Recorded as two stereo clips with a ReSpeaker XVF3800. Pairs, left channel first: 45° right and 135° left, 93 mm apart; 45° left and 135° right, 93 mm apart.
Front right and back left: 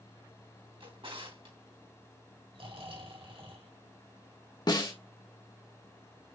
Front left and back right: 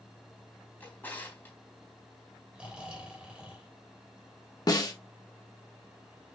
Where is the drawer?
115° left, 3 m.